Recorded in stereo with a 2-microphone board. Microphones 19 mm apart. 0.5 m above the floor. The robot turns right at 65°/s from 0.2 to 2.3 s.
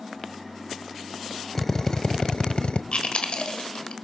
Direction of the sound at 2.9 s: 65° left (ahead or behind).